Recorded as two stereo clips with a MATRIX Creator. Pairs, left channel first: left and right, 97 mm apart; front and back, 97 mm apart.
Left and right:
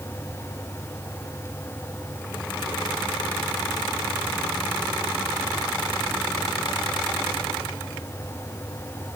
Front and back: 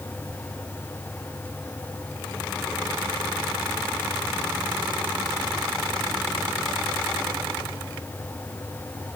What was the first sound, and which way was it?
Only background noise.